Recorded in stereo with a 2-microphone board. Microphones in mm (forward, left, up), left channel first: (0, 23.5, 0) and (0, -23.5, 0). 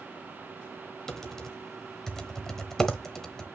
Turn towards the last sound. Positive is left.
turn(degrees=10)  # may be behind; listen again after turning